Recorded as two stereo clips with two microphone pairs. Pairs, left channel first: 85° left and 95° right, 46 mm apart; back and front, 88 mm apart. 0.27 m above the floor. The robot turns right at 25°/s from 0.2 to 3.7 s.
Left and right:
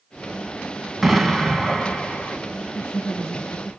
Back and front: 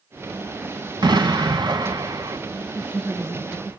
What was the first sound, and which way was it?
An explosion, 5° right.